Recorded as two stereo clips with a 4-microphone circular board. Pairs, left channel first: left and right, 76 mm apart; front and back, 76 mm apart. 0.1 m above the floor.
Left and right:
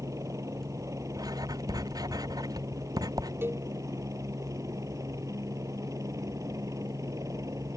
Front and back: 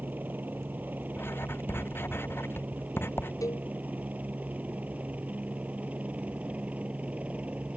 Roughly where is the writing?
Ahead right.